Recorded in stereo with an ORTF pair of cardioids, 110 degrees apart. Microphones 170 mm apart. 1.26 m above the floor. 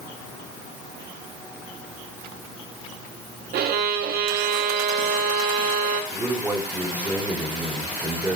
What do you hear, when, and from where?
3.5 s a violin: 65° right, 1.2 m
6.1 s a man speaking: 10° right, 5 m